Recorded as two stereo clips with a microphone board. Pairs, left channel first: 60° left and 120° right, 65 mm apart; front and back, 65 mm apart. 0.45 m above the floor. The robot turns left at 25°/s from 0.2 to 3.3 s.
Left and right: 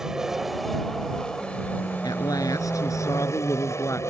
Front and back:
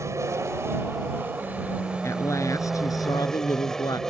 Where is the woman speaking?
50° left; by 4.0 s 15° left.